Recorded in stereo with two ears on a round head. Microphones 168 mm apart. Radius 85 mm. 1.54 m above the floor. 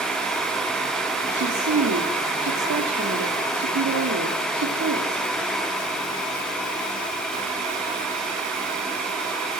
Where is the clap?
I don't hear a clap.